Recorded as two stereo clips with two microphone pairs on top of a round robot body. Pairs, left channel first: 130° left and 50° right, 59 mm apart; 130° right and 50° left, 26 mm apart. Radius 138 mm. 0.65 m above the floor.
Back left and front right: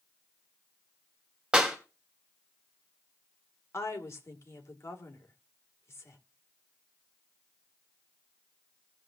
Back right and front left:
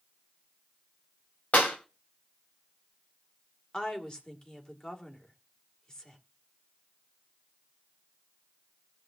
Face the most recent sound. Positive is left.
turn(degrees=175)